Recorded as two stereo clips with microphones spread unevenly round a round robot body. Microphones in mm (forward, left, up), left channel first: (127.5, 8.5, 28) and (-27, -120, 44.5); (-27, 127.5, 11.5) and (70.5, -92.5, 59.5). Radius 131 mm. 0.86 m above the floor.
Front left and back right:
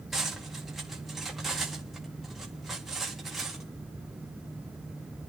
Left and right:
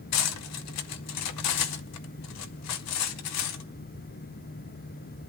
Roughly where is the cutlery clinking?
Behind left.